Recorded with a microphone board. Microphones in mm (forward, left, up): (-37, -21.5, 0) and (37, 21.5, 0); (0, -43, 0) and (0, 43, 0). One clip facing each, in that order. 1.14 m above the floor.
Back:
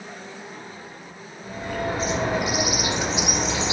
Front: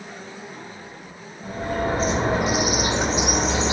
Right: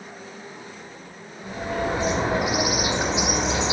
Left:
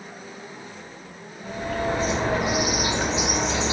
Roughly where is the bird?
Ahead.